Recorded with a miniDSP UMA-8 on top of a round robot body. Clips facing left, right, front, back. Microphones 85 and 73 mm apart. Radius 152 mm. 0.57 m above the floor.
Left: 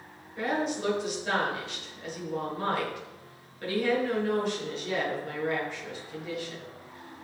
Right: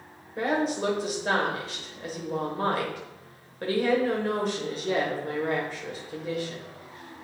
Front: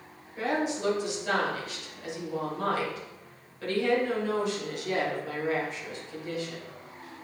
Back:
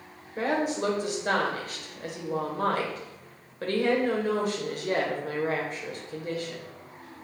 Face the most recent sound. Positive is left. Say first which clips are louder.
# right 3 dB, back 2 dB
turn(degrees=-140)